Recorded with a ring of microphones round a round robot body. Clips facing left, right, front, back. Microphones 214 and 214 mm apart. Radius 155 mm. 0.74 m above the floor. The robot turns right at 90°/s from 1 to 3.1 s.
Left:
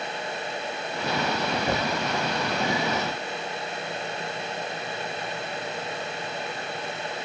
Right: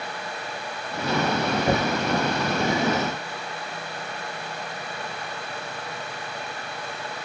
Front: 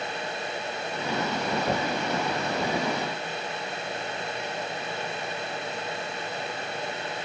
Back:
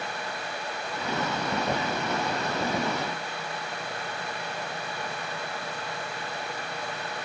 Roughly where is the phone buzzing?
I don't hear a phone buzzing.